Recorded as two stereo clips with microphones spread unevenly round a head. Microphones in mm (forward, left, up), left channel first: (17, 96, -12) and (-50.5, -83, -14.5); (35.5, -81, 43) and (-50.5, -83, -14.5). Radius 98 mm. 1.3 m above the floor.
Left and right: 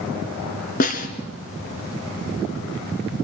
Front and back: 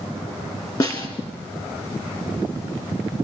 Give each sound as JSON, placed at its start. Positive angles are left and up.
{"t": 0.8, "sound": "a snare drum", "azimuth_deg": 25, "distance_m": 3.0}